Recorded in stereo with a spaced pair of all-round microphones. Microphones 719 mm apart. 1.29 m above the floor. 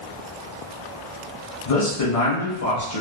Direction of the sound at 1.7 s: 50° left (ahead or behind).